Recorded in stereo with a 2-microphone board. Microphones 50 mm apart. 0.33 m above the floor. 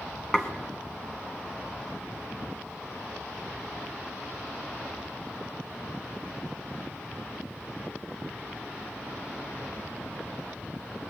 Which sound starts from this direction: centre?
Dishes clattering, at 0.3 s.